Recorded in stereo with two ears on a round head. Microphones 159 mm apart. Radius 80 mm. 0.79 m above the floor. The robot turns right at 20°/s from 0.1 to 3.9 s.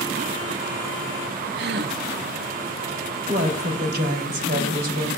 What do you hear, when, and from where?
1.6 s a gasp: 65° right (ahead or behind), 0.7 m; by 2.0 s 60° right (ahead or behind), 0.7 m
3.3 s a woman speaking: 45° right (ahead or behind), 3 m; by 5.1 s 55° right (ahead or behind), 3 m